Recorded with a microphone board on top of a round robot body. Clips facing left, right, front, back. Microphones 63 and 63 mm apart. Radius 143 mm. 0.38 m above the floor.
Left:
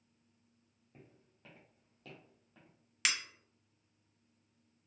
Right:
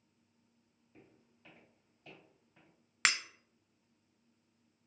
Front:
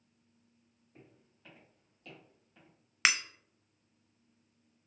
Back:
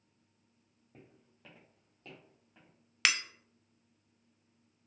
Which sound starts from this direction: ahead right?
Breaking glass, at 3.0 s.